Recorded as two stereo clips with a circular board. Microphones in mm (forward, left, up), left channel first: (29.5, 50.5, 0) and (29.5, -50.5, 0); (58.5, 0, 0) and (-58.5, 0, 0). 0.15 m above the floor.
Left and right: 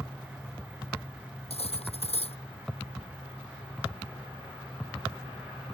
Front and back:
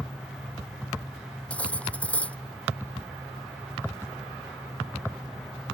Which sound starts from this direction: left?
Cutlery clinking, at 1.5 s.